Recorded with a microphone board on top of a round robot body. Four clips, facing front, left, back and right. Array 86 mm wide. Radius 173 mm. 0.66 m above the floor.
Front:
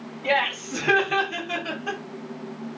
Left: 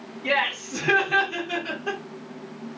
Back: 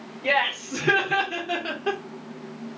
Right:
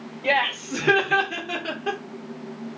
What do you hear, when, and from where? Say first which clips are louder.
0.2 s laughter: right 2 dB, even; 105° right, 2.5 m; by 2.0 s 145° right, 1.3 m